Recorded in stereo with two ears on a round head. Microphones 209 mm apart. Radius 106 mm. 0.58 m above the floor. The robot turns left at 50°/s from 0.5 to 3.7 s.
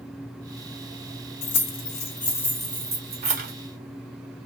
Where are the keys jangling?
55° left (ahead or behind), 0.8 m; by 3.5 s 40° right (ahead or behind), 0.8 m.